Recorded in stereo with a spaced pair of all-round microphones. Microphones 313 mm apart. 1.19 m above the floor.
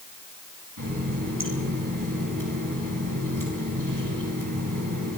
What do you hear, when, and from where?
0.8 s a running tap: 80° right, 6 m